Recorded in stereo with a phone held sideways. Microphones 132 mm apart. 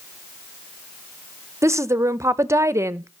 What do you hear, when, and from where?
1.6 s a woman speaking: 20° right (ahead or behind), 0.6 m